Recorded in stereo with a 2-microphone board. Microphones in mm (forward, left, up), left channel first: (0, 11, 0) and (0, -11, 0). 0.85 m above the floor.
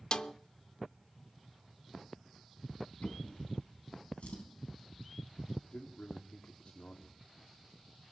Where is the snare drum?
40° left (ahead or behind), 0.5 m.